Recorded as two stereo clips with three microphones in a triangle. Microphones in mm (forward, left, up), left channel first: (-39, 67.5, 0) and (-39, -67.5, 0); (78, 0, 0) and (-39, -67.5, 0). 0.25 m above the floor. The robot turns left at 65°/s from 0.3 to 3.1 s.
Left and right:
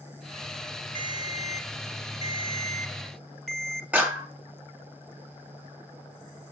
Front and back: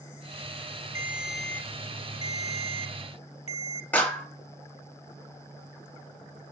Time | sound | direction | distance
0.9 | a ringtone | 140° left | 0.7 m
3.9 | a clap | 30° right | 0.8 m